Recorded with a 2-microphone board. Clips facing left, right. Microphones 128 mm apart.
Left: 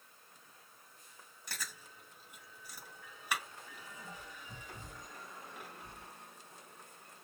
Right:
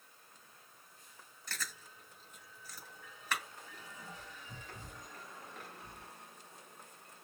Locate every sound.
1.5 s chewing: 10° left (ahead or behind), 2 m